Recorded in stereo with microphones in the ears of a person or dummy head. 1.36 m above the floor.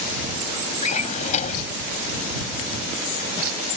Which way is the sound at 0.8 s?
40° left (ahead or behind).